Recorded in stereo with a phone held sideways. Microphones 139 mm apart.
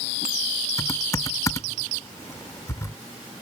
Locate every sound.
0.8 s typing on a keyboard: 25° left (ahead or behind)